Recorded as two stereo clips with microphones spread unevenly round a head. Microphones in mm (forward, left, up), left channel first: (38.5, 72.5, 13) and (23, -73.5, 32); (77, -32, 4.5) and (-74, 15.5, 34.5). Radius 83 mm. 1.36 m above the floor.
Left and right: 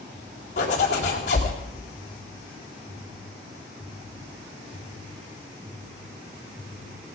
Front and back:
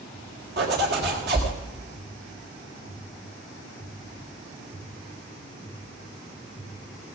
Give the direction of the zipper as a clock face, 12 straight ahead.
8 o'clock.